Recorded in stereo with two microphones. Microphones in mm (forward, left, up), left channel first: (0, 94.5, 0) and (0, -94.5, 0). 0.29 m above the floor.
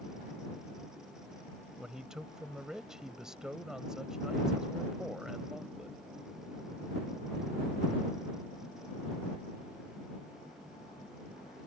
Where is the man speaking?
5° right (ahead or behind).